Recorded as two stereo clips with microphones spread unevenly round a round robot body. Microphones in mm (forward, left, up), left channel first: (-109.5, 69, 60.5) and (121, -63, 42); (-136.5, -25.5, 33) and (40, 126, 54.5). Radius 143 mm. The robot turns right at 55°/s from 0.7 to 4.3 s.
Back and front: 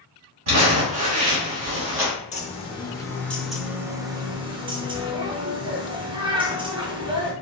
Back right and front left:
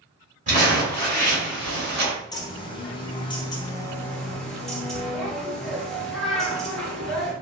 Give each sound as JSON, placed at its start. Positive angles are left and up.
{"t": 0.5, "sound": "crumpling", "azimuth_deg": -20, "distance_m": 1.9}
{"t": 2.3, "sound": "a bird", "azimuth_deg": -175, "distance_m": 0.7}